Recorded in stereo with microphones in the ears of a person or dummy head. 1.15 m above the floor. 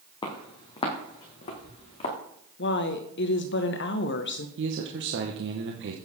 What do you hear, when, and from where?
0.2 s footsteps: 25° left (ahead or behind), 1.9 m; by 2.1 s 40° left (ahead or behind), 3.5 m
2.6 s a woman speaking: 60° left (ahead or behind), 0.8 m
4.6 s a man speaking: 50° right (ahead or behind), 1.0 m